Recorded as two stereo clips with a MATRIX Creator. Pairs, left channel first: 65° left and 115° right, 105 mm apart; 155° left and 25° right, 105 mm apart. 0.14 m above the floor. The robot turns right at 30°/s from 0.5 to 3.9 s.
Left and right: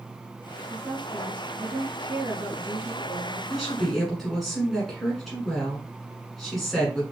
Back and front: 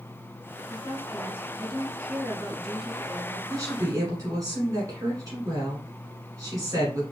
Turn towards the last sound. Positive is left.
turn(degrees=-20)